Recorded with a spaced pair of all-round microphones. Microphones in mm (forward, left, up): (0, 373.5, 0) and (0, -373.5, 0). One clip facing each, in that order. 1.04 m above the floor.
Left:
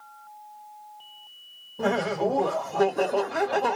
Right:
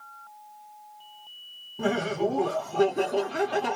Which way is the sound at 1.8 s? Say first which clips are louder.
Left 1 dB; centre (ahead or behind).